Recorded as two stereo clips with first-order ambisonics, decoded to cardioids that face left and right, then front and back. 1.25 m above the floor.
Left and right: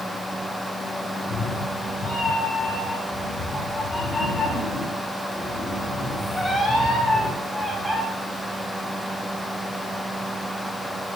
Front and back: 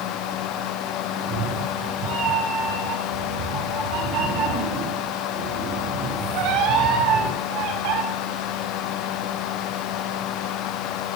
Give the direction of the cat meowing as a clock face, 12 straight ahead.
8 o'clock.